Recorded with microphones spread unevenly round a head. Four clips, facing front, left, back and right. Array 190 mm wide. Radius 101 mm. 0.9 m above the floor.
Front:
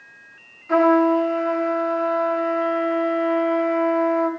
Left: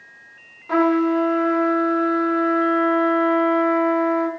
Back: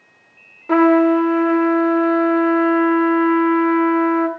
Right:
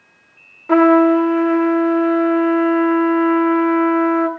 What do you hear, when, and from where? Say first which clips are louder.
0.7 s a trumpet: right 7 dB, back 3 dB; 145° right, 2 m